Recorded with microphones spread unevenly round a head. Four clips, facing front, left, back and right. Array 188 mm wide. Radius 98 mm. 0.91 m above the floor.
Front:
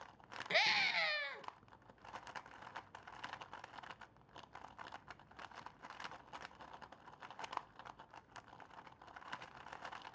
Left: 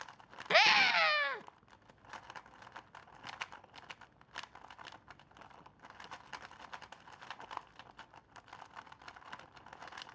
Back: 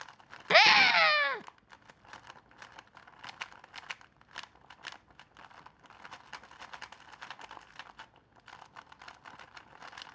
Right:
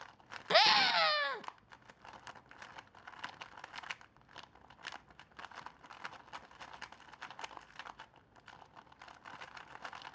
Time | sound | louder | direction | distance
0.5 | a scream | even, back 14 dB | 165° right | 0.6 m